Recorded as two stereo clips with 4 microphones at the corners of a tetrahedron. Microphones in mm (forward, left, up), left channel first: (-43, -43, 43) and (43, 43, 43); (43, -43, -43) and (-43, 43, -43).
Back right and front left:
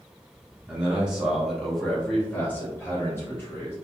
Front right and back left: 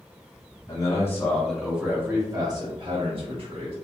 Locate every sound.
0.7 s a man speaking: 25° right, 0.8 m; by 3.8 s 155° left, 1.4 m